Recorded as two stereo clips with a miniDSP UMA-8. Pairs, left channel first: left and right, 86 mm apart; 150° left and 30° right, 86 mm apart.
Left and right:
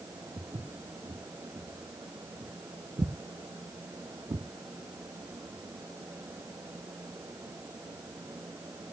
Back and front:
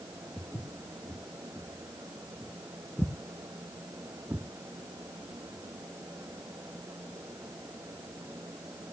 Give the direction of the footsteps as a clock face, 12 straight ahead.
4 o'clock.